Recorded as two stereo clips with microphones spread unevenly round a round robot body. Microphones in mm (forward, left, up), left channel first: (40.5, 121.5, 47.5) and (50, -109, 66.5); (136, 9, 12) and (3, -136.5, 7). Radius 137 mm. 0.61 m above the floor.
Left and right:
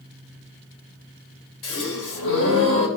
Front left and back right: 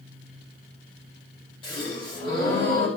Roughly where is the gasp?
Behind left.